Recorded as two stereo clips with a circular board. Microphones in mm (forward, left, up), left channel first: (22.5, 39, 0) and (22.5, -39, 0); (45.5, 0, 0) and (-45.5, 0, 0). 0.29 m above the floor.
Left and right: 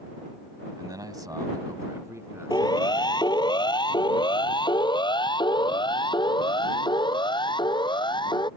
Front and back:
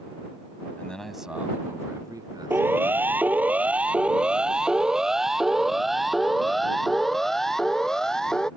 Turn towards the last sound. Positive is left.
turn(degrees=85)